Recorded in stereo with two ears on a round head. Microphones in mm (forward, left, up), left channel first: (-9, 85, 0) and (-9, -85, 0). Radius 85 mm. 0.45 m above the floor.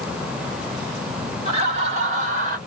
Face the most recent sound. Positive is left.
turn(degrees=-45)  # may be behind; listen again after turning